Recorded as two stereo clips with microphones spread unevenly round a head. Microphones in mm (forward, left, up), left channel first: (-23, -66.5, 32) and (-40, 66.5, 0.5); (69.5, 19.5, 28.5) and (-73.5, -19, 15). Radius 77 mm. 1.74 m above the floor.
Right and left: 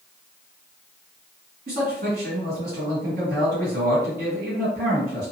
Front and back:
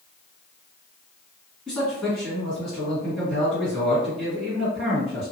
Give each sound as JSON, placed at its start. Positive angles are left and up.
{"t": 1.7, "sound": "a man speaking", "azimuth_deg": 110, "distance_m": 2.0}